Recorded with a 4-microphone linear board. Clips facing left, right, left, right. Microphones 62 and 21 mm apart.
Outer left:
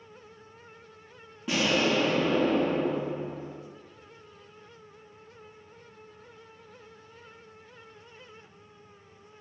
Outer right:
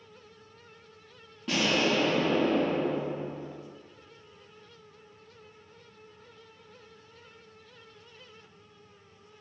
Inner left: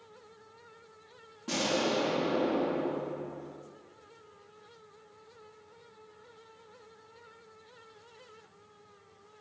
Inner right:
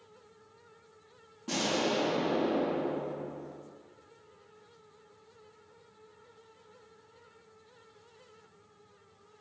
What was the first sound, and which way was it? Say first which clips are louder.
An explosion: outer left 1 dB, inner left 1 dB; 10° left (ahead or behind).